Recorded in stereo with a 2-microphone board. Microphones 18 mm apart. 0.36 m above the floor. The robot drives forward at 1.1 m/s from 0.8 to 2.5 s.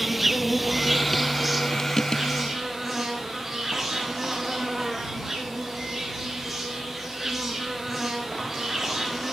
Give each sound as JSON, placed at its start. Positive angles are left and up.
{"t": 0.0, "sound": "an insect", "side_deg": -5, "distance_m": 0.8}